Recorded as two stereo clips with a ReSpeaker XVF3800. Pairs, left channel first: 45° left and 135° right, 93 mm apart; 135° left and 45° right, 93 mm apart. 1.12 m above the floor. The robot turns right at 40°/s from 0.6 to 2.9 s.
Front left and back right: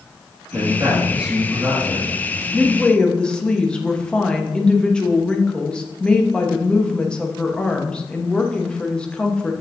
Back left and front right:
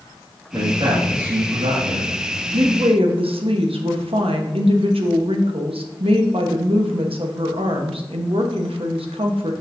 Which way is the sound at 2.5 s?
50° right.